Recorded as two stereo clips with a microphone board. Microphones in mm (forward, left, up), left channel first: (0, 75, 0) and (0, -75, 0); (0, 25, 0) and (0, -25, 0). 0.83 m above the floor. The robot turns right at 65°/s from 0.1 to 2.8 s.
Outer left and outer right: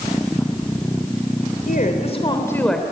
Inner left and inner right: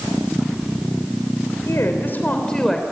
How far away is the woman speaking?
About 3 m.